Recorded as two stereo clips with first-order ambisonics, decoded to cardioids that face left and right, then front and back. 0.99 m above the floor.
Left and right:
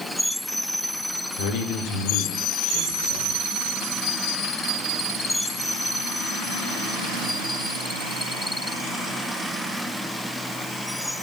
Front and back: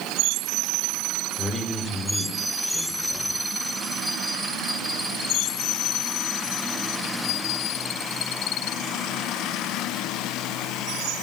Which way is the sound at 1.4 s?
85° left.